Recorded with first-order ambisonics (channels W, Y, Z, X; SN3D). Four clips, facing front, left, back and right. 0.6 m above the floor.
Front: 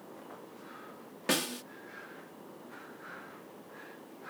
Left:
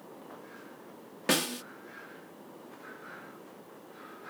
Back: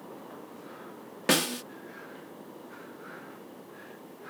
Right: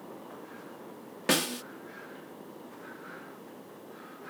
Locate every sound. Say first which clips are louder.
1.3 s a snare drum: right 1 dB, back 6 dB; 170° right